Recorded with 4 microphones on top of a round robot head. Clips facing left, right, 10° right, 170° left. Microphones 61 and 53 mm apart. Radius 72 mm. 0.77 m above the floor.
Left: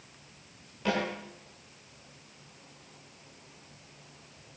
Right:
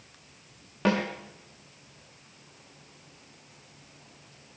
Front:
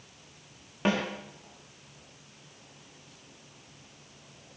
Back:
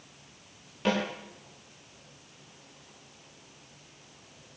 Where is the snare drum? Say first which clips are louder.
Right 4 dB, even; 70° right, 6.5 m.